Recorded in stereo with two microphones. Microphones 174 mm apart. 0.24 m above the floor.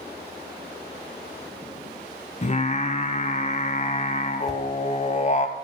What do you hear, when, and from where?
2.4 s singing: 40° left (ahead or behind), 0.8 m
4.5 s a whoosh: centre (ahead or behind), 1.0 m